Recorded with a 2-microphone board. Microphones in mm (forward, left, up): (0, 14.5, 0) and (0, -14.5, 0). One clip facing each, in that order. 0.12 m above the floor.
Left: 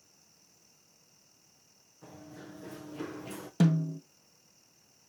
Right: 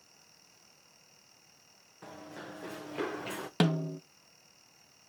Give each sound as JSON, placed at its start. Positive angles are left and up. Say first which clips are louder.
{"t": 2.0, "sound": "running footsteps", "louder": "right 3 dB", "side_deg": -75, "distance_m": 1.3}
{"t": 3.6, "sound": "a snare drum", "louder": "left 2 dB", "side_deg": -60, "distance_m": 0.6}